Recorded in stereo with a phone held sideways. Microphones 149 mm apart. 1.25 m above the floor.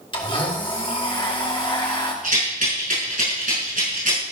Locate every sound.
0.1 s a blender: 35° left (ahead or behind), 2 m
2.2 s a rattle: 65° right (ahead or behind), 5 m